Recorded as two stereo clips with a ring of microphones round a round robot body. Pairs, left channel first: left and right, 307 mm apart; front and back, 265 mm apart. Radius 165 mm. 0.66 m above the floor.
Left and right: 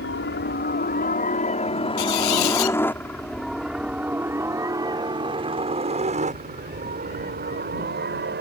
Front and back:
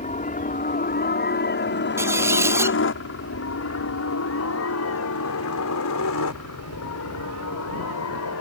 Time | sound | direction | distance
0.0 | a helicopter | 50° left | ?
2.0 | a squeak | 100° left | ?